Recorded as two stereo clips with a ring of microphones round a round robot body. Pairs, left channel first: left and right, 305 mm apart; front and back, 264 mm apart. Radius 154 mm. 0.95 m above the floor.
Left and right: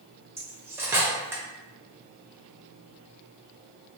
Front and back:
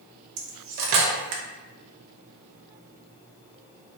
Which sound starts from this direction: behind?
Cutlery clinking, at 0.4 s.